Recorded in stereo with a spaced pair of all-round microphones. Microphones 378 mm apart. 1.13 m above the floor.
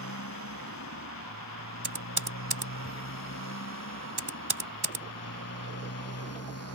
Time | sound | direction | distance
0.0 | a motorcycle | 45° left (ahead or behind) | ?
1.8 | typing on a keyboard | 80° right | ?